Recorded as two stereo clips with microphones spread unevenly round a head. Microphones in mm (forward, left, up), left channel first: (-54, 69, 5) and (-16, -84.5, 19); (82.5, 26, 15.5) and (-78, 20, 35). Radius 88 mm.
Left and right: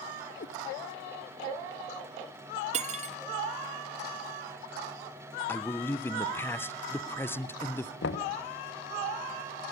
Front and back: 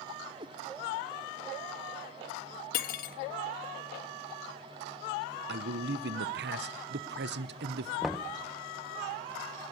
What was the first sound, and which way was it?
A cat meowing, 135° left.